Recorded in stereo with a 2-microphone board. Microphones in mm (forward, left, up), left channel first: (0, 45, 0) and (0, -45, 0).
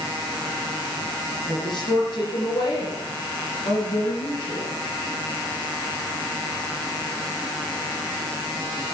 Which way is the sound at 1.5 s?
55° left (ahead or behind).